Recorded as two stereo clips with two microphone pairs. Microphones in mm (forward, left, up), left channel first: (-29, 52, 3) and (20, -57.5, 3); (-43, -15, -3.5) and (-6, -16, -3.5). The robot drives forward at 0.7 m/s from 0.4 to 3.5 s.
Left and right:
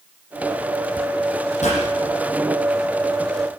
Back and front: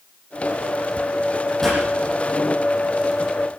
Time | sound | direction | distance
1.6 | a pop | 100° left | 9.5 m